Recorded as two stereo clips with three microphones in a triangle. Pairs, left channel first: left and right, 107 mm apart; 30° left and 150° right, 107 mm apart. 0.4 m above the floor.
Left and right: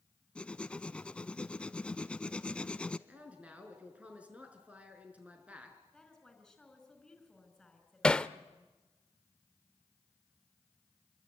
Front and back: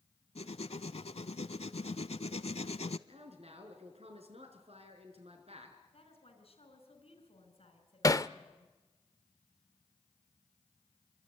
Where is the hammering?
20° left, 0.7 m.